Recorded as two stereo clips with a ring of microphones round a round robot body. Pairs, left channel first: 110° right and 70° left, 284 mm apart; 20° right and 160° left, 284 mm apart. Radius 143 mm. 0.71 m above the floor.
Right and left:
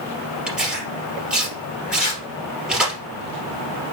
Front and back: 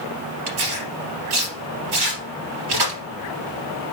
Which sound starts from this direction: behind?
Tearing paper, at 2.0 s.